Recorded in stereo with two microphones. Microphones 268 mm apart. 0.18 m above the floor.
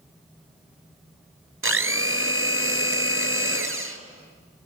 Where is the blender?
55° right (ahead or behind), 1.6 m.